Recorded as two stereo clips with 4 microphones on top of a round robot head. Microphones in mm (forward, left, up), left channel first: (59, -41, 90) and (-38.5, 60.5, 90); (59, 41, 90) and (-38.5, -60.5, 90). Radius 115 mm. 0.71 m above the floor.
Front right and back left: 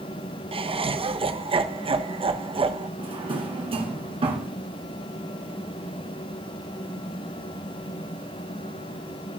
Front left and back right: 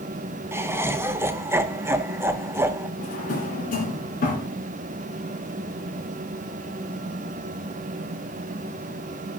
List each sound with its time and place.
0.5 s laughter: 160° left, 1.1 m
3.0 s a drawer: 80° left, 2 m